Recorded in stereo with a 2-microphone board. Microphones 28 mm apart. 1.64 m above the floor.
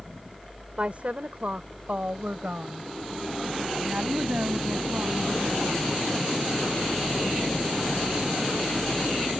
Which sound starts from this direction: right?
A woman speaking, at 0.8 s.